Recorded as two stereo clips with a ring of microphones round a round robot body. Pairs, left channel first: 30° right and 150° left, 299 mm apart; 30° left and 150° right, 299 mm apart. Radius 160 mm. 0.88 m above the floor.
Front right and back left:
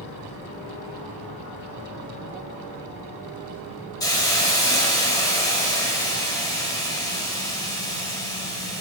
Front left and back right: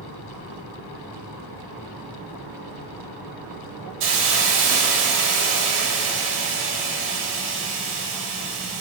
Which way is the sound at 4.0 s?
105° right.